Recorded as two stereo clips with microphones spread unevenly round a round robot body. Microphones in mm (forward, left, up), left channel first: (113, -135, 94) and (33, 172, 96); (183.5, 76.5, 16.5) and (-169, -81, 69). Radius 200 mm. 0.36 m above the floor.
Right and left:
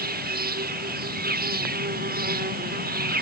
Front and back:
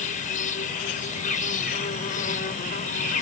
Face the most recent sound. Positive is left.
turn(degrees=65)